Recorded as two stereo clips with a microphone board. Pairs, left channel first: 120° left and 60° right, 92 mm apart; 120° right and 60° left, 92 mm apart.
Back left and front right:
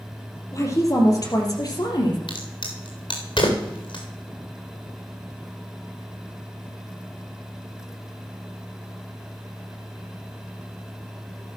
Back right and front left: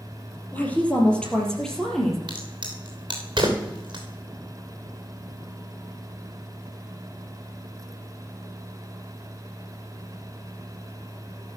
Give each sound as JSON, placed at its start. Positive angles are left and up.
{"t": 0.5, "sound": "a woman speaking", "azimuth_deg": 170, "distance_m": 3.0}
{"t": 2.3, "sound": "a crack", "azimuth_deg": 100, "distance_m": 3.0}